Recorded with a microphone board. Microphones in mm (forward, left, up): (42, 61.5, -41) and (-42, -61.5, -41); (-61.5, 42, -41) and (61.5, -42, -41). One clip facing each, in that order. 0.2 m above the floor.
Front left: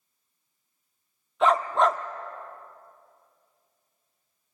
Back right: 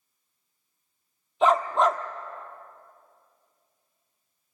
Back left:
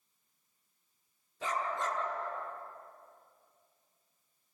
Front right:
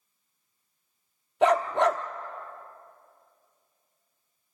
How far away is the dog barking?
About 1.1 m.